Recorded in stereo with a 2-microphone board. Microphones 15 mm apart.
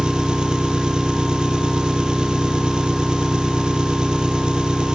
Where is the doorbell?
No doorbell in this recording.